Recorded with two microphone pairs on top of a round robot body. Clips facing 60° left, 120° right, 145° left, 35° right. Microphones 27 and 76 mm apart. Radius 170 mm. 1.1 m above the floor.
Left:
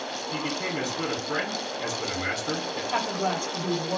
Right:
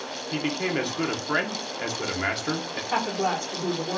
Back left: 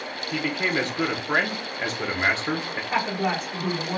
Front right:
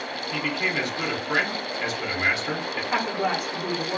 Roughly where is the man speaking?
Behind.